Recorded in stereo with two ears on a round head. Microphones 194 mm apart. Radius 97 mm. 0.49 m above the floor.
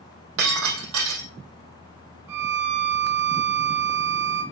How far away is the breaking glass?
About 3.5 m.